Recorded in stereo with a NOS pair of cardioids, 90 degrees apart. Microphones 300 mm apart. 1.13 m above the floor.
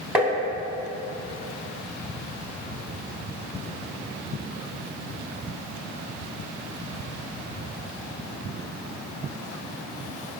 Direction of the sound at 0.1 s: 5° right.